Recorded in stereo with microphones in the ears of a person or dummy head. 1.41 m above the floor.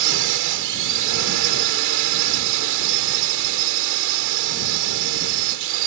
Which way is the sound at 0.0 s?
65° right (ahead or behind).